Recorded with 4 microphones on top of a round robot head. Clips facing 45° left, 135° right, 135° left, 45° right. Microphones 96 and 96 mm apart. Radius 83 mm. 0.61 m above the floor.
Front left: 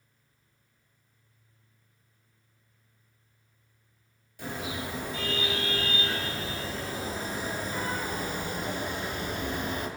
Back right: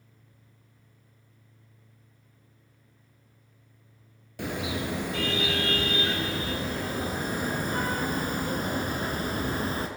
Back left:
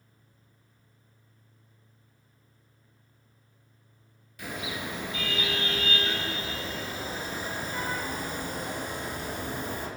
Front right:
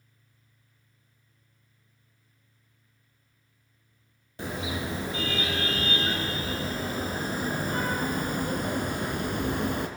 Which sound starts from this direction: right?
A car horn, at 4.4 s.